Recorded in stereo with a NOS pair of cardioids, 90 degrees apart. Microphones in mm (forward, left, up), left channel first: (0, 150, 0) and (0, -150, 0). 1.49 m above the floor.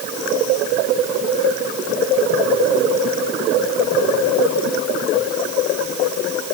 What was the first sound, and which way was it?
Only background noise.